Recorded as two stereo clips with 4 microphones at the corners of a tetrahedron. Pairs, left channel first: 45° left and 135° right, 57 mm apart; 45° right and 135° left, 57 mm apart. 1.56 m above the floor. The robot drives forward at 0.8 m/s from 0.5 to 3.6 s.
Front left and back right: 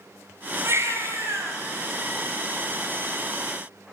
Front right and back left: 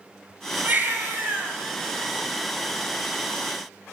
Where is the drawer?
I don't hear a drawer.